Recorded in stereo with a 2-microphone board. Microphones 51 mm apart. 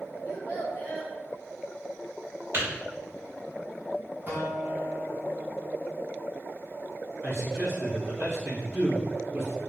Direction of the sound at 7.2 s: 50° right (ahead or behind).